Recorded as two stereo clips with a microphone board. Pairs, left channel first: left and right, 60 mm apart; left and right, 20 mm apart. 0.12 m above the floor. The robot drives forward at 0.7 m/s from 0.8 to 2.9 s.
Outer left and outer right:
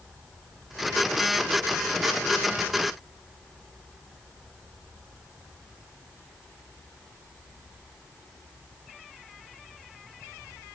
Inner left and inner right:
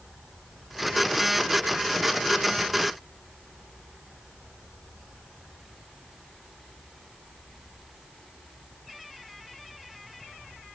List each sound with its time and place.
Only background noise.